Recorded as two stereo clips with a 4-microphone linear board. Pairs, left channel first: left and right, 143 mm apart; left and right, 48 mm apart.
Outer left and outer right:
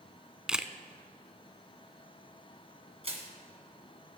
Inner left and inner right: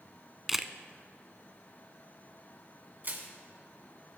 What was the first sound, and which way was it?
A camera shutter, 5° right (ahead or behind).